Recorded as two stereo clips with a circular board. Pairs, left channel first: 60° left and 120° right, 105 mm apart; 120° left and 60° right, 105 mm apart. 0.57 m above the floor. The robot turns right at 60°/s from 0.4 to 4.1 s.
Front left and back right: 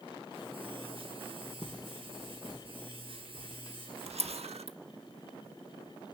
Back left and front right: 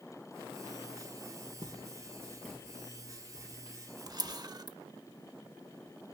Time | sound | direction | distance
1.6 | footsteps | 25° right | 2.5 m
4.1 | a camera shutter | 115° right | 0.6 m